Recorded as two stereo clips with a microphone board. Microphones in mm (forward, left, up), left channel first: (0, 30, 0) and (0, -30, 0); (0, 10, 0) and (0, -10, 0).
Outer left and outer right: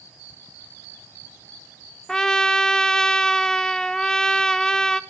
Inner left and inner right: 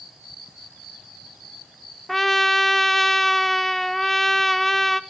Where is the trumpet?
10° left (ahead or behind), 0.9 m.